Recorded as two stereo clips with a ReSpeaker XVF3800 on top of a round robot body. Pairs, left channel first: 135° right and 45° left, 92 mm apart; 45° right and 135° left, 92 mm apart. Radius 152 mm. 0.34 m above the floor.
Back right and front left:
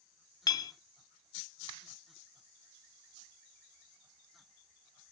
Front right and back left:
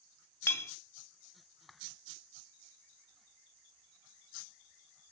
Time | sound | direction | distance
0.5 | a clink | 100° right | 0.6 m